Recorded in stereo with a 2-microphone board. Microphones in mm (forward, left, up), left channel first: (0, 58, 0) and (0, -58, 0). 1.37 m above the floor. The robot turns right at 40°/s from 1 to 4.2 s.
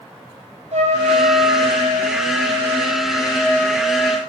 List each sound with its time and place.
0.7 s a trumpet: 105° right, 3 m; by 4.2 s 25° left, 3 m